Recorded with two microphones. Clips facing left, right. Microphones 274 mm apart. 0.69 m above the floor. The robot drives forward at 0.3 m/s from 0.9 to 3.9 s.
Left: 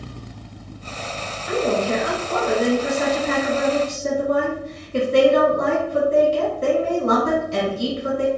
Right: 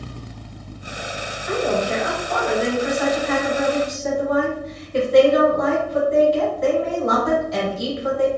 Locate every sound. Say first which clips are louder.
1.5 s a woman speaking: left 1 dB; 30° left (ahead or behind), 0.9 m; by 8.3 s 35° left (ahead or behind), 0.8 m